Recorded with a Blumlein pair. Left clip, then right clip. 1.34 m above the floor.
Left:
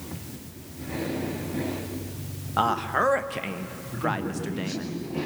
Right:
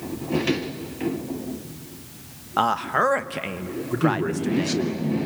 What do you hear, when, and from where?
2.6 s a man speaking: 10° right, 1.1 m
3.9 s a man speaking: 35° right, 3 m